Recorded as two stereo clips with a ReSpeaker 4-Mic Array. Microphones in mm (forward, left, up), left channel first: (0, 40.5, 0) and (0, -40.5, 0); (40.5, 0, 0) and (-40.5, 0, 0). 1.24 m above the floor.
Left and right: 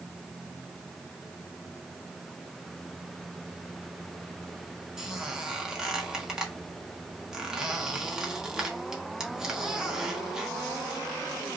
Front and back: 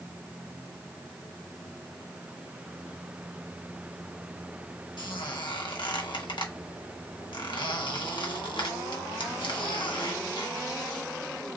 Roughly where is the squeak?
Ahead.